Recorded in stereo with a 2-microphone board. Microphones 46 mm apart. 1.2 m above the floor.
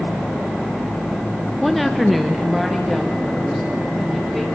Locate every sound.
1.6 s a woman speaking: 5° left (ahead or behind), 0.6 m; by 4.5 s centre (ahead or behind), 3 m